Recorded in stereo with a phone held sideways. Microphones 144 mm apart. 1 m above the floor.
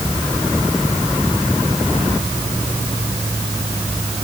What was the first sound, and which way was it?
Only background noise.